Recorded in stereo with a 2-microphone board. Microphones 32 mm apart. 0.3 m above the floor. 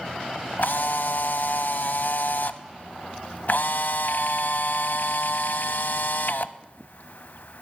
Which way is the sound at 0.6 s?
65° left (ahead or behind).